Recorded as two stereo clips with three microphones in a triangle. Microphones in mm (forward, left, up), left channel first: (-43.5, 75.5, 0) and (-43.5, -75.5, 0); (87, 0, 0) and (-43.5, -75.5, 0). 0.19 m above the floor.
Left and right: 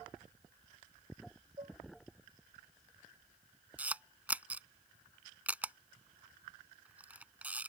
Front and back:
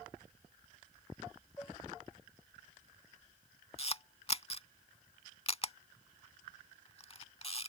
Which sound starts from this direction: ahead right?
Dishes clattering, at 1.6 s.